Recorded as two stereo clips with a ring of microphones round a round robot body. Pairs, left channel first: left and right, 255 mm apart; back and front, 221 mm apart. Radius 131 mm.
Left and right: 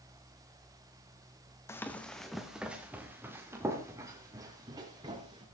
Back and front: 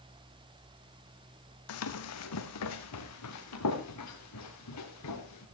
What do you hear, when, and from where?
1.7 s running footsteps: 170° left, 1.7 m; by 5.4 s 165° right, 5.5 m